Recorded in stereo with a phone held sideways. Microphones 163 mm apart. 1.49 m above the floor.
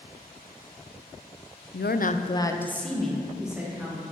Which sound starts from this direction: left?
A woman speaking, at 1.7 s.